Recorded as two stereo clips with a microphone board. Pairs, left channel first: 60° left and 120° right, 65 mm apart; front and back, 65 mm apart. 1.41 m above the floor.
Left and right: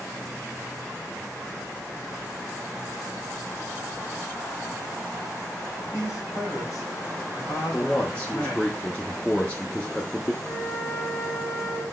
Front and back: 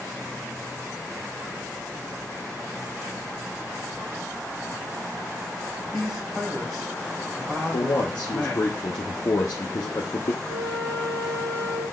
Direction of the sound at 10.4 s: 50° left.